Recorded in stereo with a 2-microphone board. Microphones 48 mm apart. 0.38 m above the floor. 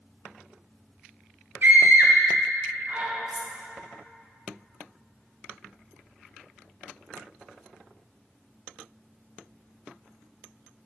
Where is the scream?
50° right (ahead or behind), 1.7 m; by 3.1 s 35° right (ahead or behind), 3.5 m.